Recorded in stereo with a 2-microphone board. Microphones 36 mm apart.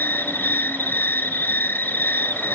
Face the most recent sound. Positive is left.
turn(degrees=85)